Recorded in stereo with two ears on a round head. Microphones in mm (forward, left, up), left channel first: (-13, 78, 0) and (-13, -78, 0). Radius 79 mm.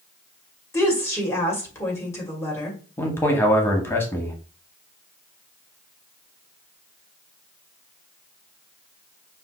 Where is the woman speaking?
15° left (ahead or behind), 1.7 m.